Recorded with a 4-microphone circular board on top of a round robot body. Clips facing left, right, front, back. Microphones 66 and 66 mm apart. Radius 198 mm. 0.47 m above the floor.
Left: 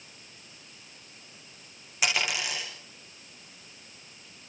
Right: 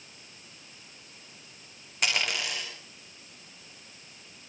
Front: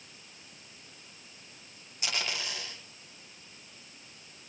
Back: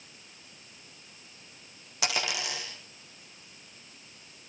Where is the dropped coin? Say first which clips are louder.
Left 1 dB, back 4 dB; straight behind, 8.5 m.